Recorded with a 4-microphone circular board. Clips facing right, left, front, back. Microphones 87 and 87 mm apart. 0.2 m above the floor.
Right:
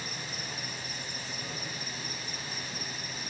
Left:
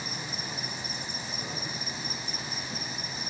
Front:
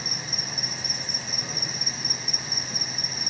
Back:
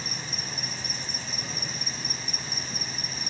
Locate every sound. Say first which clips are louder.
0.0 s an insect: left 2 dB, front 1 dB; 75° left, 1.3 m